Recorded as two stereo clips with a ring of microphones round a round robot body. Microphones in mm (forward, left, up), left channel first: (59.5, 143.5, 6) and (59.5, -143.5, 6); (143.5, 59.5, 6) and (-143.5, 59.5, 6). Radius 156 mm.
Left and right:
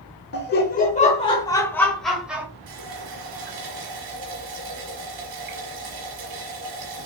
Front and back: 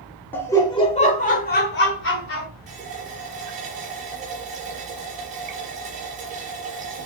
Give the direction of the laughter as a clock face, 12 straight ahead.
9 o'clock.